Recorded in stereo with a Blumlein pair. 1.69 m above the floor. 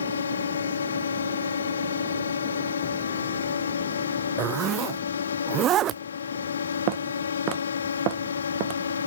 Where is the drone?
70° left.